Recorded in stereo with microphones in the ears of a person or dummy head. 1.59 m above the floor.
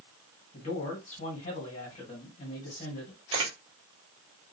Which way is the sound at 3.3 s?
35° right (ahead or behind).